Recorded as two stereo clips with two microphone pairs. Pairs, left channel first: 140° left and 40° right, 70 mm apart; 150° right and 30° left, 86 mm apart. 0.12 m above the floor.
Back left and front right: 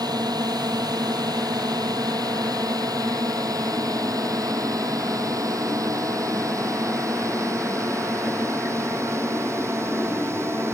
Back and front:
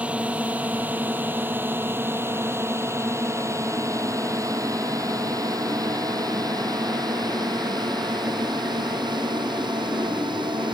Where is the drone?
40° right; by 10.8 s 10° left.